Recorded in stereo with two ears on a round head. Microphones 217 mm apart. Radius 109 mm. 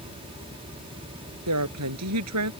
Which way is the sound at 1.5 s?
75° right (ahead or behind).